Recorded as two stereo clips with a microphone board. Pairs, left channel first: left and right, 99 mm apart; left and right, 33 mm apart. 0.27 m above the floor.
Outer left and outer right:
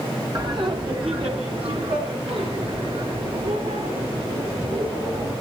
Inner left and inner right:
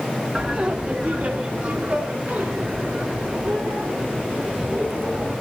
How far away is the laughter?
About 1.8 m.